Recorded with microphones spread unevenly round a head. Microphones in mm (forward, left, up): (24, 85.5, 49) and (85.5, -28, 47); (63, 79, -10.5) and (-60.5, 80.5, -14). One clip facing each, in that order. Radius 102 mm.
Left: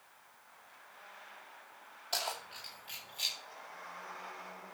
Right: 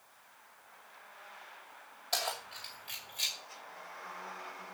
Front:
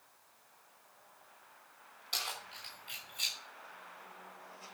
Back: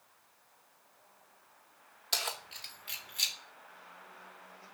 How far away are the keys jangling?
About 2.5 m.